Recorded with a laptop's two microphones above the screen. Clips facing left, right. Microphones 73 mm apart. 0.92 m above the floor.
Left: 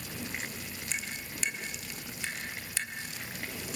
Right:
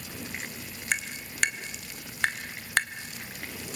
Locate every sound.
0.9 s tapping: 65° right (ahead or behind), 1.1 m